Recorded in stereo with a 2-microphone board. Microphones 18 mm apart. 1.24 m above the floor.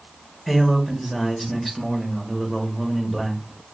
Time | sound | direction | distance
0.5 | a man speaking | 5° left (ahead or behind) | 1.0 m